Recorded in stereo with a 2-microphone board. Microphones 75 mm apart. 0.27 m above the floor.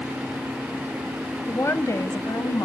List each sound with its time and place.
1.5 s a woman speaking: 35° left (ahead or behind), 1.3 m; by 2.7 s 55° left (ahead or behind), 1.8 m